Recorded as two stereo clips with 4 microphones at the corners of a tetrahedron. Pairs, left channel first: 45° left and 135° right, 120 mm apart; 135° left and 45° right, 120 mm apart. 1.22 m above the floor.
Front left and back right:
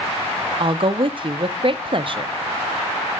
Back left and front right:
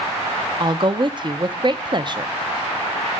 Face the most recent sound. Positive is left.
turn(degrees=-90)